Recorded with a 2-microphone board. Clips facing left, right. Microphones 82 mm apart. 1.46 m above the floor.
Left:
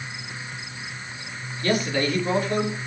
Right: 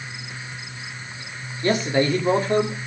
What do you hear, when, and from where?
1.6 s a man speaking: 25° right (ahead or behind), 2.5 m; by 2.8 s 35° right (ahead or behind), 3 m